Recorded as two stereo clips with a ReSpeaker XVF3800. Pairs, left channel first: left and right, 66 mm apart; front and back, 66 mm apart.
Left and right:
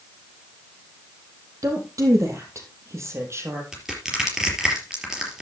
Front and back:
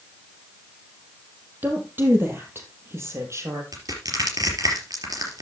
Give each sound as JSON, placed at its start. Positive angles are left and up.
{"t": 1.6, "sound": "a woman speaking", "azimuth_deg": -120, "distance_m": 4.5}
{"t": 3.7, "sound": "crushing", "azimuth_deg": -170, "distance_m": 4.0}